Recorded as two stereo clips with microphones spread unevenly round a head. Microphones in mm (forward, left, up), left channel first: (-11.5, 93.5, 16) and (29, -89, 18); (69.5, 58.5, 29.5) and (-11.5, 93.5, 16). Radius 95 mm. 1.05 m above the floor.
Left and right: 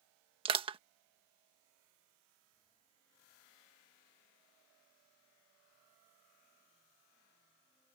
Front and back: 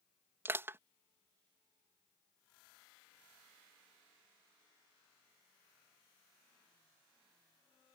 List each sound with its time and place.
0.5 s crushing: 140° right